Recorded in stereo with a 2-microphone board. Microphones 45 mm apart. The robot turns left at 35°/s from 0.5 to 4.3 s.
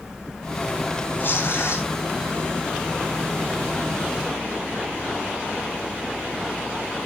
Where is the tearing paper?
55° left (ahead or behind), 3.5 m; by 1.9 s 80° left, 3.5 m.